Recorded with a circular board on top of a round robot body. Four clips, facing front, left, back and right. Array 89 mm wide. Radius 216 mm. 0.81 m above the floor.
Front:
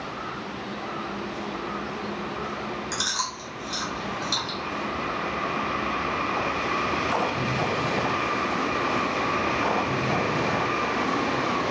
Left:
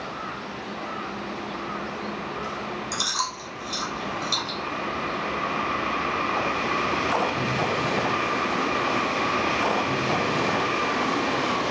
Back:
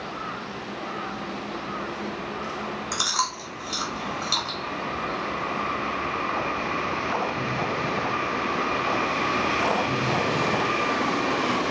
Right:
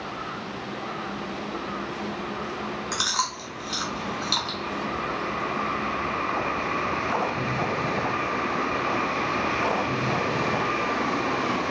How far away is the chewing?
About 1.8 m.